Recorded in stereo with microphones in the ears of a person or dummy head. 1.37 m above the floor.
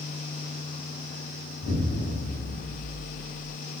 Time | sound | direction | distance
1.6 | an explosion | 50° left (ahead or behind) | 1.4 m